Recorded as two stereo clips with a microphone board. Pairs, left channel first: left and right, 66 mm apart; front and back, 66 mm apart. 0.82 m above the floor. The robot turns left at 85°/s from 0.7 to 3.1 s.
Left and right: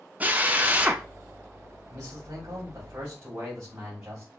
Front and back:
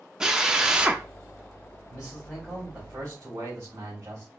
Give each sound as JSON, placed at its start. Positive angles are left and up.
{"t": 0.2, "sound": "a drill", "azimuth_deg": -110, "distance_m": 0.6}
{"t": 1.9, "sound": "a man speaking", "azimuth_deg": -35, "distance_m": 3.5}